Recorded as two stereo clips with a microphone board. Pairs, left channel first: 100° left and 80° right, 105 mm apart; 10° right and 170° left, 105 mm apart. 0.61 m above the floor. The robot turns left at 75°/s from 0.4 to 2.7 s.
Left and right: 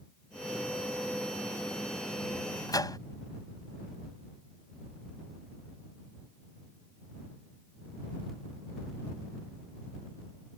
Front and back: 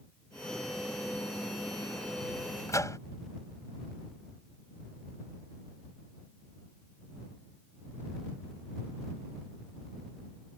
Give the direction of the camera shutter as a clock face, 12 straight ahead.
I don't hear a camera shutter.